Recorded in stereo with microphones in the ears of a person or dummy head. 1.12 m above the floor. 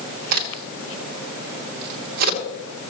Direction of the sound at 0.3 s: 55° right (ahead or behind).